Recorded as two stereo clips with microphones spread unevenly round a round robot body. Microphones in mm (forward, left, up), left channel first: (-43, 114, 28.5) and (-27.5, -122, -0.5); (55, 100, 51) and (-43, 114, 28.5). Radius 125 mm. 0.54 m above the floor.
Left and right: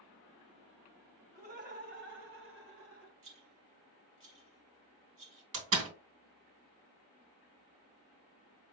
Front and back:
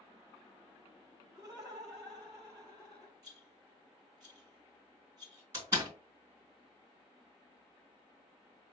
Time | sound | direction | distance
1.3 | laughter | 115° right | 2 m
3.2 | a rattle | 105° right | 3 m
5.5 | a door slam | 115° right | 3 m